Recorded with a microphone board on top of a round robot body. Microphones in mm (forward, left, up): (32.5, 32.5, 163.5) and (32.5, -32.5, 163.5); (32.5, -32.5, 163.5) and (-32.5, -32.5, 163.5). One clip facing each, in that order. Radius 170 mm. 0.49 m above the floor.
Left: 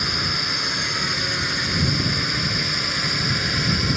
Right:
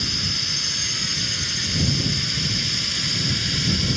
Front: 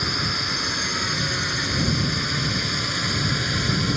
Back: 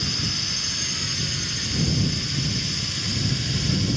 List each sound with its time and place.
0.0 s a drone: 45° left; by 4.0 s 40° left